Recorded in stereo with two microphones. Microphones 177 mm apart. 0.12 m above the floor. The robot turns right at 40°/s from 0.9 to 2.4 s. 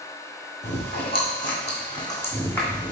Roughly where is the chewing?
Left.